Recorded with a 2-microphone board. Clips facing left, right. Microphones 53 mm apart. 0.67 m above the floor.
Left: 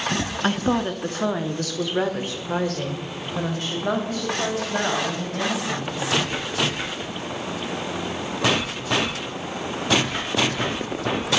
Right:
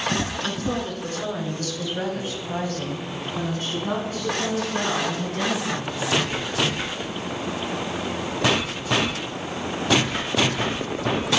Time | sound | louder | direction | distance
0.4 | a woman speaking | left 5 dB | 40° left (ahead or behind) | 0.7 m